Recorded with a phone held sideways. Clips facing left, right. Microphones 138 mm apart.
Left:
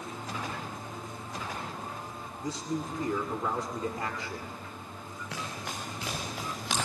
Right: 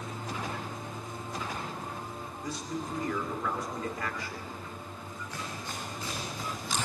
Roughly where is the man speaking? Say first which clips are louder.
Left 3 dB; left.